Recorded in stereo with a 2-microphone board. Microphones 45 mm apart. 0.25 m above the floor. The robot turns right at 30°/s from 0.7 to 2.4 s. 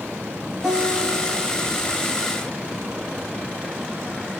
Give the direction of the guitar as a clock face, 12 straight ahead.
12 o'clock.